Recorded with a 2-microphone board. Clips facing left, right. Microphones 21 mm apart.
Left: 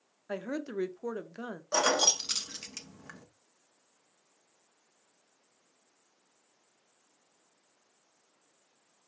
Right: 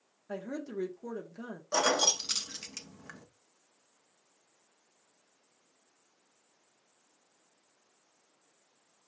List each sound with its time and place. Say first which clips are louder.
0.3 s a woman speaking: left 3 dB; 40° left (ahead or behind), 0.6 m
1.7 s keys jangling: left 1 dB; 5° left (ahead or behind), 0.5 m